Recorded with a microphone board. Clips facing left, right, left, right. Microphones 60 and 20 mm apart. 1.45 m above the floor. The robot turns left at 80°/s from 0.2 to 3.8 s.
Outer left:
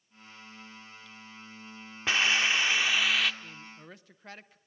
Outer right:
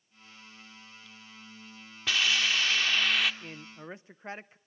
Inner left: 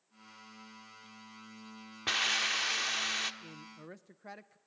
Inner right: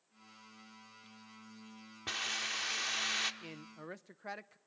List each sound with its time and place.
2.1 s a hiss: 30° left (ahead or behind), 1.1 m; by 3.3 s 5° right (ahead or behind), 1.1 m
3.4 s a man speaking: 120° right, 0.7 m; by 4.6 s 150° right, 0.7 m